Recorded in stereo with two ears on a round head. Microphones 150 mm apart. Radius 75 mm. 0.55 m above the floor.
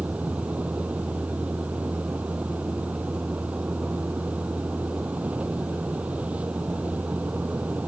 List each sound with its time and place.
0.0 s a vehicle: 10° right (ahead or behind)